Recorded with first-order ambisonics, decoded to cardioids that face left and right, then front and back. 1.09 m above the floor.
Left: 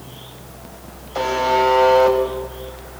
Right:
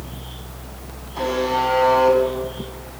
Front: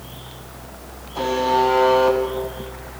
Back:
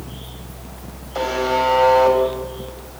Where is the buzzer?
125° left, 6.5 m.